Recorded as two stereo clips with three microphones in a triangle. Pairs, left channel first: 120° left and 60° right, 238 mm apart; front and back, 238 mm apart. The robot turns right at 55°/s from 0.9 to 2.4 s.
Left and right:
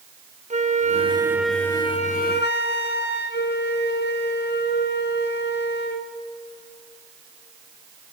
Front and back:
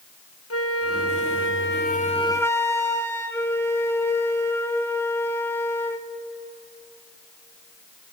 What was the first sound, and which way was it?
A flute, 5° right.